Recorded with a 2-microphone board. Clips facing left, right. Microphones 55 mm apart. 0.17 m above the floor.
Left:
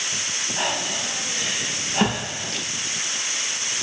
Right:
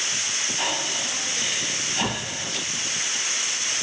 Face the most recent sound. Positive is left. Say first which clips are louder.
# left 3 dB
turn(degrees=55)  # may be behind; listen again after turning